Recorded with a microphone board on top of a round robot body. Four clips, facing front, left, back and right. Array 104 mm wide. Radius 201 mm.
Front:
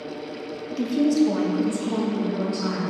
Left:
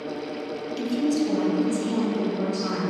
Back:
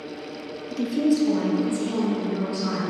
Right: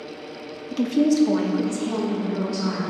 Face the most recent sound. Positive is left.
turn(degrees=-60)